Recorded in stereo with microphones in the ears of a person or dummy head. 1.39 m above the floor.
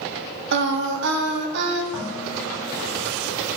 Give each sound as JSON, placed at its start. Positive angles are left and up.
{"t": 0.5, "sound": "singing", "side_deg": -65, "distance_m": 0.9}
{"t": 1.9, "sound": "dishes clattering", "side_deg": -10, "distance_m": 3.0}